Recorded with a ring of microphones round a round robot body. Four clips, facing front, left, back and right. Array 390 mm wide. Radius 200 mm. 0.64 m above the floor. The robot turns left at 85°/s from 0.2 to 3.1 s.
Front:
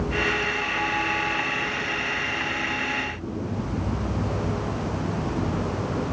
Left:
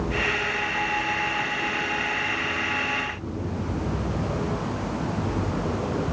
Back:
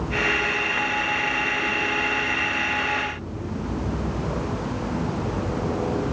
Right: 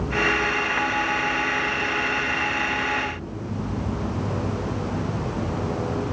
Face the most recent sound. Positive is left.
No sound to turn to.